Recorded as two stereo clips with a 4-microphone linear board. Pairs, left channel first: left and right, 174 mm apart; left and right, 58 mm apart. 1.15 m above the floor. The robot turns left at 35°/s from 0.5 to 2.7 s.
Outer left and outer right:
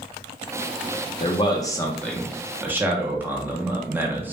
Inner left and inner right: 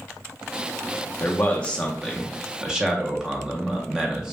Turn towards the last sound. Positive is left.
turn(degrees=-15)